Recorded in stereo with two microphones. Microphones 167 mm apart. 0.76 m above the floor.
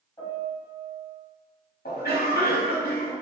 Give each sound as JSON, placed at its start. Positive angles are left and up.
{"t": 0.2, "sound": "a piano", "side_deg": 25, "distance_m": 1.7}
{"t": 1.9, "sound": "a cough", "side_deg": 65, "distance_m": 1.5}